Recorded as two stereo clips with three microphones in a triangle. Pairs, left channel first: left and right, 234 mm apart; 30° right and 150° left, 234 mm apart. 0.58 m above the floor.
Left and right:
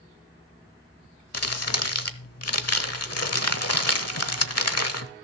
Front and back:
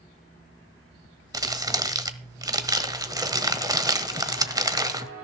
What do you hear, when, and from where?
1.3 s crumpling: 75° left, 1.1 m